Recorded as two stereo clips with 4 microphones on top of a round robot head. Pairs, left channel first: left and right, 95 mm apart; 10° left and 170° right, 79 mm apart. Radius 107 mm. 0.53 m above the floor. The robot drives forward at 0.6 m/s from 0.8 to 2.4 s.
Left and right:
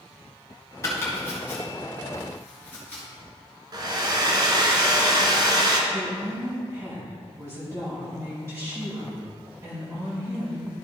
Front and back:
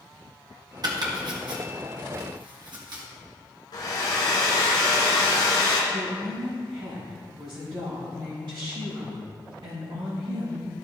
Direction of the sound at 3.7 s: 45° right.